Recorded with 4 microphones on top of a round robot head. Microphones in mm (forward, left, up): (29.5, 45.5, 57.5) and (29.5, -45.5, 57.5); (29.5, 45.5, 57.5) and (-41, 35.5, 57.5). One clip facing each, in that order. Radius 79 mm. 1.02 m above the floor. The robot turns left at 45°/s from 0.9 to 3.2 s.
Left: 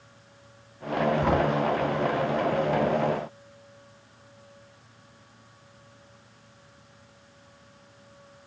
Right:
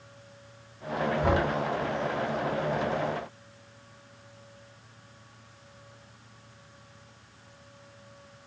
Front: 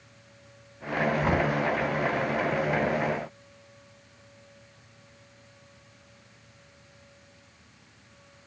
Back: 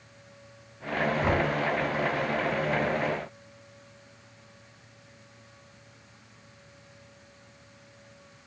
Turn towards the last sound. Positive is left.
turn(degrees=10)